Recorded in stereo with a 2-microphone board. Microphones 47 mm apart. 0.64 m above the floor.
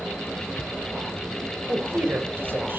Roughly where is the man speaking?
Right.